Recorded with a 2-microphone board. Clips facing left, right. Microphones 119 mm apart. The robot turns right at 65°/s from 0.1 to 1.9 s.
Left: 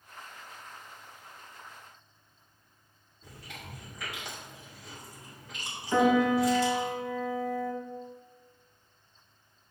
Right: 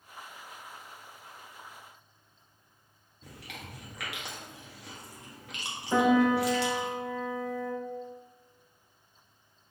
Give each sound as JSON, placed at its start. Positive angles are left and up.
{"t": 3.2, "sound": "chewing", "side_deg": -75, "distance_m": 1.5}
{"t": 5.9, "sound": "a piano", "side_deg": -20, "distance_m": 1.3}